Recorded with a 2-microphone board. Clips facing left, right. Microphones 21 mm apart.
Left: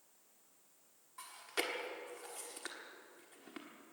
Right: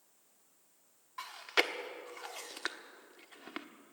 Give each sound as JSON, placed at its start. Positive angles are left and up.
{"t": 1.2, "sound": "chewing", "side_deg": -40, "distance_m": 1.2}